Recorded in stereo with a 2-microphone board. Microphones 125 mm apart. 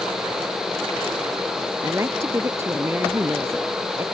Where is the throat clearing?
No throat clearing in this recording.